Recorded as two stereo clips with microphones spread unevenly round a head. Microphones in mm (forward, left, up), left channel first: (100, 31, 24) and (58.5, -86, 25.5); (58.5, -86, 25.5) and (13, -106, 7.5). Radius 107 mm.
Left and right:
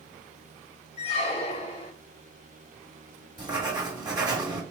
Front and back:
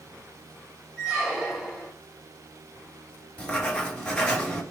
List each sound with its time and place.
1.0 s a squeak: 105° left, 0.7 m
3.4 s writing: 50° right, 2 m